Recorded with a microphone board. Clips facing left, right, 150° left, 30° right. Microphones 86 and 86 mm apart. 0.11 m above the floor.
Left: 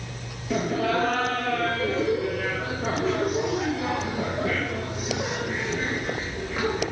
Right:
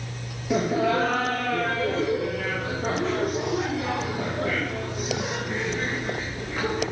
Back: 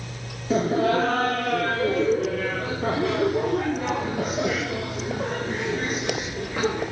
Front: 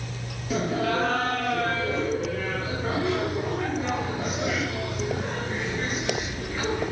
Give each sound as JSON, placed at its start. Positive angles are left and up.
{"t": 0.5, "sound": "laughter", "azimuth_deg": -165, "distance_m": 2.0}